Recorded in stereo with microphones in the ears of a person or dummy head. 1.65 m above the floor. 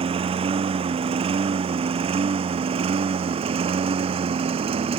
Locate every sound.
0.0 s a lawn mower: 35° right (ahead or behind)